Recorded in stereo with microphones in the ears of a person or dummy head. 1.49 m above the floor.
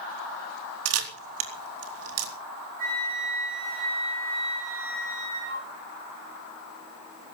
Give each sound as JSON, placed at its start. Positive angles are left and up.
{"t": 0.8, "sound": "a camera shutter", "side_deg": -85, "distance_m": 3.0}
{"t": 2.8, "sound": "a flute", "side_deg": -50, "distance_m": 6.5}